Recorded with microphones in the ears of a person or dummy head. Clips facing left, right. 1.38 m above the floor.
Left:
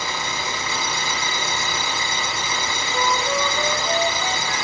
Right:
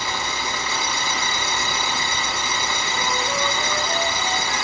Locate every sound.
0.0 s an engine running: 80° right, 5.5 m
2.9 s a flute: 45° left (ahead or behind), 0.9 m